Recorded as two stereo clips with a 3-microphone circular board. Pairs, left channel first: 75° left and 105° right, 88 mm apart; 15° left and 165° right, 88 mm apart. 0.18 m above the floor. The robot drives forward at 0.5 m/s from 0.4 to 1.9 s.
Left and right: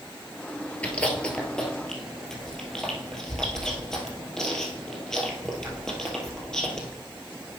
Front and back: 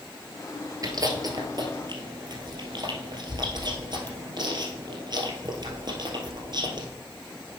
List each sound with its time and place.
0.8 s chewing: 150° left, 1.4 m; by 6.9 s 160° left, 1.9 m